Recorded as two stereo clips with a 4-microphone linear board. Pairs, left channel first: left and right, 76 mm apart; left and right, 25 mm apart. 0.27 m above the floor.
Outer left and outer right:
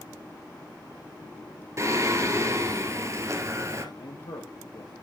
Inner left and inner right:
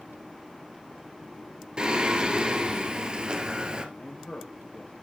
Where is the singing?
40° right (ahead or behind), 1.7 m.